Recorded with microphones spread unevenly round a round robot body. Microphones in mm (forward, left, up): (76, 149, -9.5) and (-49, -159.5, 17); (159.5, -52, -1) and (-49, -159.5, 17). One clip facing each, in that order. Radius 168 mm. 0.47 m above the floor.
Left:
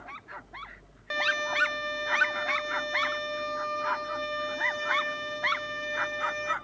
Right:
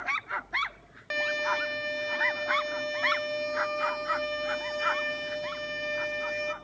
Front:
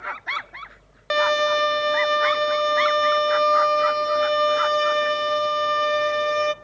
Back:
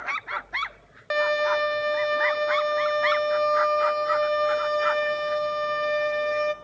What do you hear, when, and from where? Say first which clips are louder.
1.1 s a violin: right 2 dB, front 2 dB; 30° right, 0.5 m